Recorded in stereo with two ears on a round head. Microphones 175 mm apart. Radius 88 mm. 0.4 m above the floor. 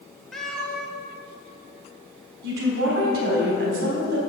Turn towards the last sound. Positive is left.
turn(degrees=-60)  # may be behind; listen again after turning